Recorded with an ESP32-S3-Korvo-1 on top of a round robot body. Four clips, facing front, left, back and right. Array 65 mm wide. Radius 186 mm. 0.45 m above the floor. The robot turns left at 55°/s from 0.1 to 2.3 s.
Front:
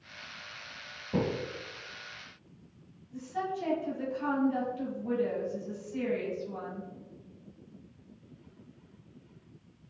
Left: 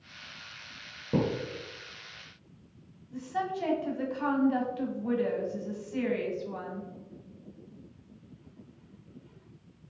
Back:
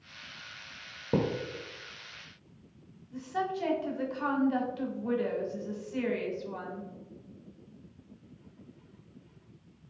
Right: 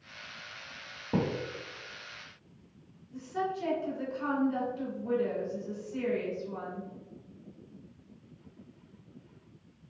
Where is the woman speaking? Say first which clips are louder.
Left 1 dB, back 2 dB; 140° left, 1.4 m.